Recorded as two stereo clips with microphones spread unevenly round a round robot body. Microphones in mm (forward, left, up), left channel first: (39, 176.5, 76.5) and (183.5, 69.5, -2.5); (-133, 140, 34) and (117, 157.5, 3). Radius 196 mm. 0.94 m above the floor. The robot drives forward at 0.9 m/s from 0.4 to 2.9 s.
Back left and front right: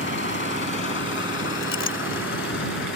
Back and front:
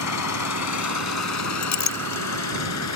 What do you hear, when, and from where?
0.0 s an engine running: 160° right; by 3.0 s 170° right
1.6 s a clink: 160° right; by 2.2 s 165° right